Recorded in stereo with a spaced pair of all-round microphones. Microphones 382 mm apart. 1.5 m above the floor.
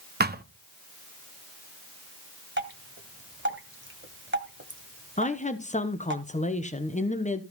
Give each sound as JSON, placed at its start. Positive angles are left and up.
{"t": 0.2, "sound": "a thud", "side_deg": -25, "distance_m": 0.9}
{"t": 2.6, "sound": "dripping", "side_deg": -30, "distance_m": 1.5}
{"t": 5.2, "sound": "a woman speaking", "side_deg": 15, "distance_m": 1.0}